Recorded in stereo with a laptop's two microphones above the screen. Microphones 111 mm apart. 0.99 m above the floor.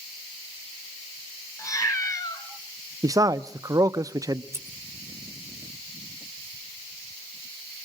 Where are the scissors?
25° right (ahead or behind), 4 m.